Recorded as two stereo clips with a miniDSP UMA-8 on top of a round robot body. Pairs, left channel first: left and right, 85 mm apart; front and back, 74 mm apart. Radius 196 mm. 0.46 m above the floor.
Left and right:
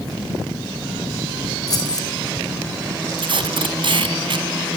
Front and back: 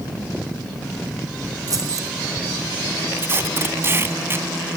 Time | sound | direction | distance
1.7 | keys jangling | 135° left | 5 m
3.2 | tape being pulled | 120° right | 2 m